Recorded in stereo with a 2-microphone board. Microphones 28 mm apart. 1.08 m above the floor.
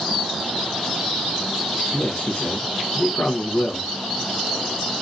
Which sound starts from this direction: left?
A man speaking, at 1.9 s.